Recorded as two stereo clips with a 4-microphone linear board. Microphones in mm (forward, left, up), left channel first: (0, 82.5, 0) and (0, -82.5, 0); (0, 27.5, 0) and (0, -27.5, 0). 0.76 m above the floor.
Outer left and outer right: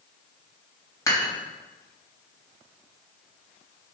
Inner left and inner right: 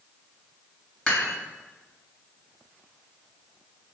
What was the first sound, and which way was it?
Dishes clattering, 20° left (ahead or behind).